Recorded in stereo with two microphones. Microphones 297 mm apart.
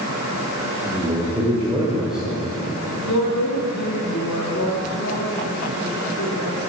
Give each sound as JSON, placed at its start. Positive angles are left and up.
{"t": 0.8, "sound": "a man speaking", "side_deg": 0, "distance_m": 3.5}
{"t": 3.0, "sound": "a woman speaking", "side_deg": 65, "distance_m": 2.5}